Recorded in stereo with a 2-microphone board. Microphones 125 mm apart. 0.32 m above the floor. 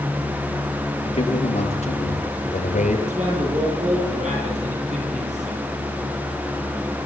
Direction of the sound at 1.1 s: 50° left (ahead or behind).